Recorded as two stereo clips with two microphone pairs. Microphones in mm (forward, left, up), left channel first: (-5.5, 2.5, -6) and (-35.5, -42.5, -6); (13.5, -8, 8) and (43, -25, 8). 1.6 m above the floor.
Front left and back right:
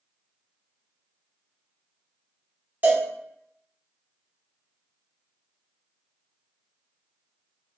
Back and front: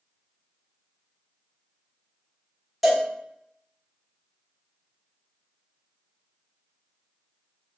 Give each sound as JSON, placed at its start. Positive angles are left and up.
{"t": 2.8, "sound": "a cowbell", "azimuth_deg": -105, "distance_m": 1.4}